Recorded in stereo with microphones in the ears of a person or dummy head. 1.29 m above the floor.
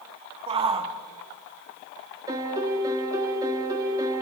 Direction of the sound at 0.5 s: 30° right (ahead or behind).